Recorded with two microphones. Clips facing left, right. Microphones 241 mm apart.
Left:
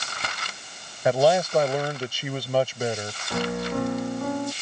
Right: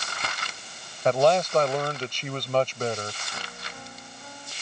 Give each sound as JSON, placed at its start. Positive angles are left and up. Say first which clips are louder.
{"t": 1.1, "sound": "a man speaking", "louder": "left 1 dB", "side_deg": 10}
{"t": 3.3, "sound": "a piano", "louder": "left 17 dB", "side_deg": 70}